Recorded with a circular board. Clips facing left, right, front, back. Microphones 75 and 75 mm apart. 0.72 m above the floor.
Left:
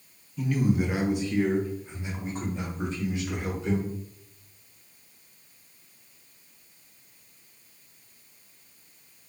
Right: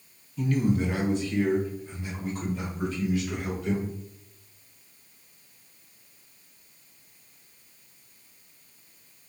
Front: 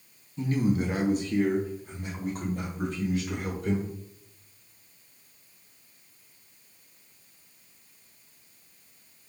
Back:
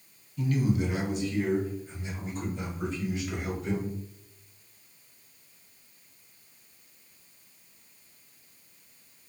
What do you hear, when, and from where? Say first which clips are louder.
0.4 s a man speaking: even, front 1 dB; 10° left, 0.6 m; by 3.9 s 30° left, 2 m